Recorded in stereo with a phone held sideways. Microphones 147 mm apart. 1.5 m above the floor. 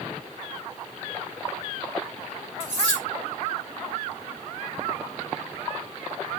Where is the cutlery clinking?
45° left (ahead or behind), 3.5 m.